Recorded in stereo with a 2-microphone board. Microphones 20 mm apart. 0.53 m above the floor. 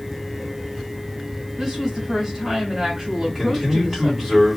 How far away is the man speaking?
About 3.5 m.